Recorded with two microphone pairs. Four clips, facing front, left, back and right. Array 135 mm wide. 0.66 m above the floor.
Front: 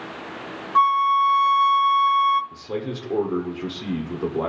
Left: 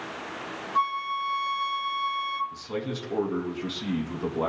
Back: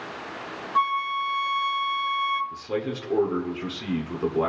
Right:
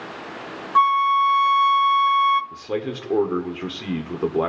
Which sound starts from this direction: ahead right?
A flute, at 0.8 s.